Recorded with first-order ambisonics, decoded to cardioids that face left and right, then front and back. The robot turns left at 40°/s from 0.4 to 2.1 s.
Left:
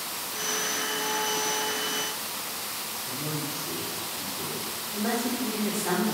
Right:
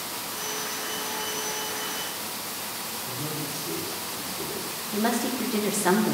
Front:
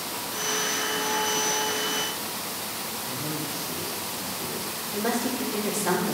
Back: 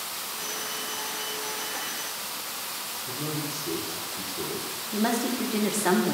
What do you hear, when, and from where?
3.1 s a man speaking: 165° right, 2.5 m
4.9 s a woman speaking: 130° right, 1.9 m